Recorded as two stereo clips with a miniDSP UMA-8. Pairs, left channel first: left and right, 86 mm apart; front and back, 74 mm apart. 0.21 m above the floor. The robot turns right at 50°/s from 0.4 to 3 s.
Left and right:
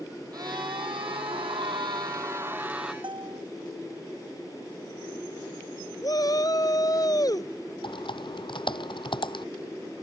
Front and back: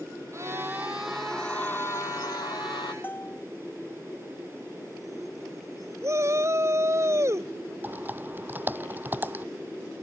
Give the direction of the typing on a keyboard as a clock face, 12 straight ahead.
8 o'clock.